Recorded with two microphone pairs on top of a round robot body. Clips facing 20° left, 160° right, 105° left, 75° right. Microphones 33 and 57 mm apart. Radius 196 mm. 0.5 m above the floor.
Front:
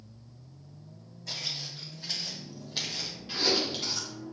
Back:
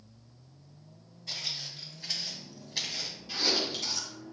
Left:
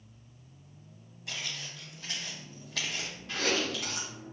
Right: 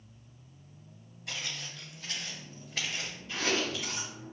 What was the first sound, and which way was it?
Footsteps, 15° left.